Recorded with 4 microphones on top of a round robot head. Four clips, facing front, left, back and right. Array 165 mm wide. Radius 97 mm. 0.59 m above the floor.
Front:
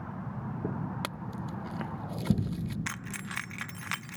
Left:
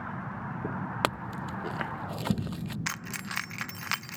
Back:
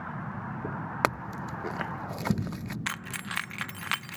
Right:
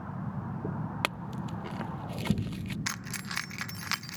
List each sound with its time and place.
1.0 s a clink: 150° left
2.9 s keys jangling: 150° left